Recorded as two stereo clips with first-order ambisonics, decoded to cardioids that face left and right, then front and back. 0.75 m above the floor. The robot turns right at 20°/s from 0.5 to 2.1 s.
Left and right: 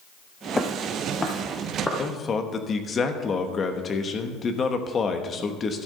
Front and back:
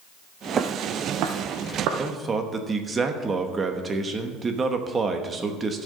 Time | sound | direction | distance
0.6 | footsteps | 160° left | 0.8 m
2.0 | a man speaking | 130° left | 0.9 m